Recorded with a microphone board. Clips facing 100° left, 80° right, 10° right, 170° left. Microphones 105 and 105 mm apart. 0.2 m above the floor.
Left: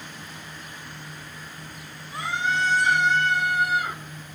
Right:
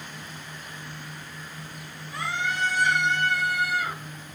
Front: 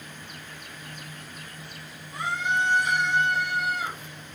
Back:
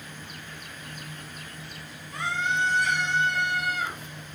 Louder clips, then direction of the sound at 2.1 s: Left 3 dB, front 1 dB; 170° left.